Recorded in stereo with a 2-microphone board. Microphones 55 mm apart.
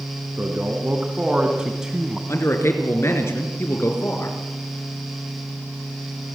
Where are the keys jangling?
No keys jangling in this recording.